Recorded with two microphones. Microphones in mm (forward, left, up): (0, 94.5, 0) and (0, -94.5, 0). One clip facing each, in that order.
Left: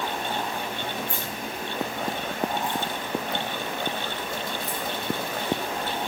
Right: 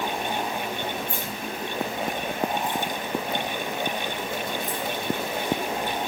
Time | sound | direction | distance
1.1 | keys jangling | 20° right (ahead or behind) | 8 m